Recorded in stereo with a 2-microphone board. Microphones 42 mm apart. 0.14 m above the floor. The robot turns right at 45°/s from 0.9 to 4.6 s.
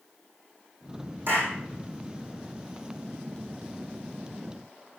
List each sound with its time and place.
1.3 s a clap: 55° right (ahead or behind), 5 m; by 1.6 s 70° right (ahead or behind), 5 m